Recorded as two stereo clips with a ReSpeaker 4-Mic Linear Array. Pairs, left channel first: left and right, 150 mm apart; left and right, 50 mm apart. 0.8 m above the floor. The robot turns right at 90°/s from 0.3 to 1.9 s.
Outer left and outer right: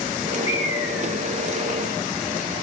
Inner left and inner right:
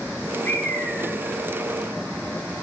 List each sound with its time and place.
0.5 s a bird: 55° left, 1.6 m; by 1.4 s 140° left, 1.6 m